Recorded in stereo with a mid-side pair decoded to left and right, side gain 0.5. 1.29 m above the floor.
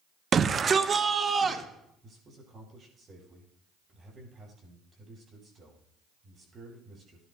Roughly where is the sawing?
I don't hear sawing.